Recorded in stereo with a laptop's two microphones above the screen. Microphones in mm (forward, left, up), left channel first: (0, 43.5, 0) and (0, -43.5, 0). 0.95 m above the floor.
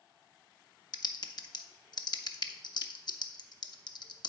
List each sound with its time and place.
0.9 s typing on a keyboard: 55° left (ahead or behind), 0.7 m